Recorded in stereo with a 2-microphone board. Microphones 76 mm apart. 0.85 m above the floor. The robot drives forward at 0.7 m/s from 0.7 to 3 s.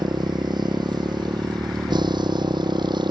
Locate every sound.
0.0 s a motorcycle: 75° right (ahead or behind); by 3.1 s 80° right